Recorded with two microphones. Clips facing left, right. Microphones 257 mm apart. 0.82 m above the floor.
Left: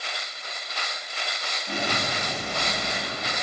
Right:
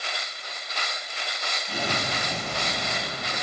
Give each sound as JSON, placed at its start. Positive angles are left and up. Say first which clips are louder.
{"t": 1.7, "sound": "an explosion", "louder": "left 1 dB", "side_deg": 55, "distance_m": 1.6}